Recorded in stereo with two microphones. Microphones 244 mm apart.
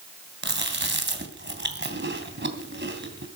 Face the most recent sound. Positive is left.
turn(degrees=-45)  # may be behind; listen again after turning